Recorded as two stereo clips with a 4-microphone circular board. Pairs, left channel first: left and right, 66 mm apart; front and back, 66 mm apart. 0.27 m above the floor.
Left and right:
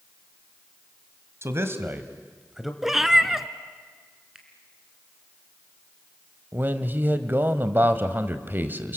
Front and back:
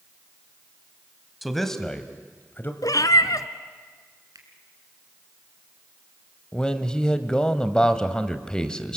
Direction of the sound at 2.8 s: 5° right.